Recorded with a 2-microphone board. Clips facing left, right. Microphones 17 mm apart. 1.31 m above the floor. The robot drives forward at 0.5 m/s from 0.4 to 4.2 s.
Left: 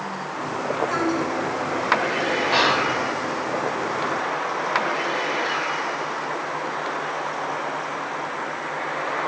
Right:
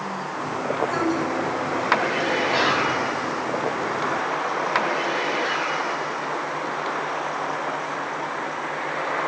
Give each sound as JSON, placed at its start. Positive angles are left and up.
{"t": 0.9, "sound": "a woman speaking", "side_deg": 85, "distance_m": 6.0}
{"t": 2.5, "sound": "whispering", "side_deg": 65, "distance_m": 1.5}